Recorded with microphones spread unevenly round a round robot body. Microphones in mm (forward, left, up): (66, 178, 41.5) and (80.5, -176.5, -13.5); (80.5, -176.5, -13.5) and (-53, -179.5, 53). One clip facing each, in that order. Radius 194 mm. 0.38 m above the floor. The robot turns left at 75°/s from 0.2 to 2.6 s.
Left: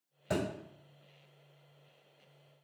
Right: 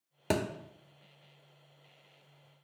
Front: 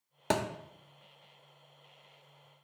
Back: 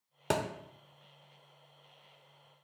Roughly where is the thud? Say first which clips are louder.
Right 2 dB, front 1 dB; right.